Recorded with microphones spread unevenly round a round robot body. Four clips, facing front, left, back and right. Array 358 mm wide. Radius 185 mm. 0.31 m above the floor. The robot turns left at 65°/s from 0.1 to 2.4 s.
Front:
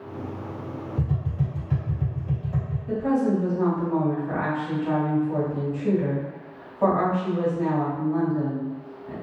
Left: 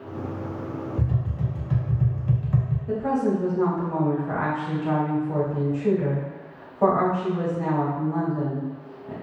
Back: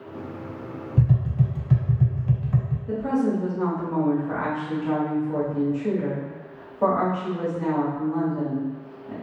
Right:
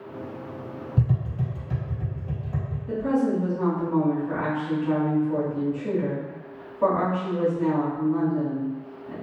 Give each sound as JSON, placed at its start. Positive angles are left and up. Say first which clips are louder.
{"t": 1.0, "sound": "tapping", "louder": "right 1 dB, back 6 dB", "azimuth_deg": -135, "distance_m": 0.8}
{"t": 2.9, "sound": "a woman speaking", "louder": "even, front 1 dB", "azimuth_deg": 75, "distance_m": 1.7}